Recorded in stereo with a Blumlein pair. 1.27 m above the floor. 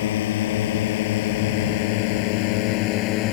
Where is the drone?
55° left; by 3.3 s 40° left.